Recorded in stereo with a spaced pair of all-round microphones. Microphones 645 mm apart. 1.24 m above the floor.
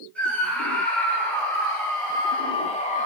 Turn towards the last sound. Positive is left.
turn(degrees=10)  # may be behind; listen again after turning